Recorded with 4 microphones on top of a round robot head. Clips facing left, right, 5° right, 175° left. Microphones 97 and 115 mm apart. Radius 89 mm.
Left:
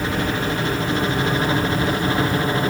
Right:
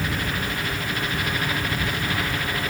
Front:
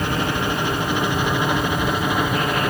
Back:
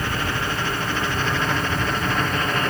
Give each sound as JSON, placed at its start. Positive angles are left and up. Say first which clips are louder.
{"t": 0.0, "sound": "a helicopter", "louder": "left 5 dB, front 4 dB", "azimuth_deg": 50}